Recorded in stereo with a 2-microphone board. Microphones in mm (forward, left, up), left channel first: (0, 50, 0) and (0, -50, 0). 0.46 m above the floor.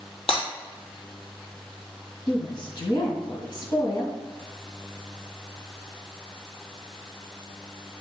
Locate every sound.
0.3 s breaking glass: 70° left (ahead or behind), 2.5 m
2.3 s a woman speaking: 60° left (ahead or behind), 2.5 m